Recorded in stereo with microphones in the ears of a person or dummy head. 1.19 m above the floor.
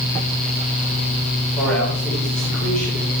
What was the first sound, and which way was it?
A man speaking, 5° left (ahead or behind).